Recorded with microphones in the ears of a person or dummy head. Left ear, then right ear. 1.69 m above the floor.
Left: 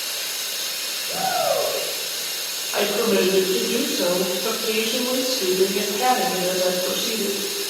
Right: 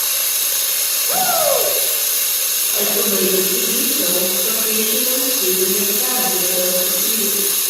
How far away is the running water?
About 7 m.